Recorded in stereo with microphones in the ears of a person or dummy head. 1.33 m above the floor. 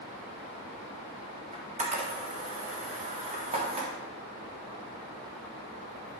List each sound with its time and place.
1.5 s a camera shutter: 30° right (ahead or behind), 1.6 m